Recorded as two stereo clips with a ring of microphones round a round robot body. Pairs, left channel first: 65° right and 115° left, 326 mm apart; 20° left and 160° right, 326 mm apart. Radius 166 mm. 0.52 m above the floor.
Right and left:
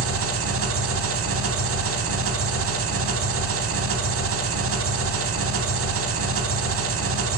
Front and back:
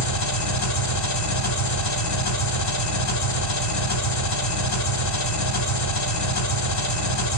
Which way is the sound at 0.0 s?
60° left.